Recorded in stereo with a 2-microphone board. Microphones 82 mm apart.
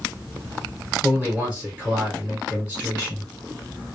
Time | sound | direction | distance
1.0 | a man speaking | 20° right (ahead or behind) | 2.5 m